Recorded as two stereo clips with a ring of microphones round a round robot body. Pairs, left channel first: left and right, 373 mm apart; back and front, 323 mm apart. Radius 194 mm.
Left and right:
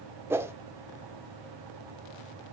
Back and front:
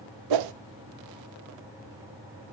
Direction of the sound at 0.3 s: 5° right.